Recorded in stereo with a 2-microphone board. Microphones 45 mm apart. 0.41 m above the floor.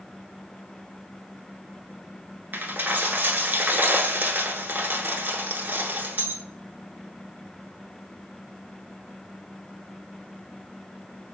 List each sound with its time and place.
2.5 s a dropped coin: 50° right (ahead or behind), 0.8 m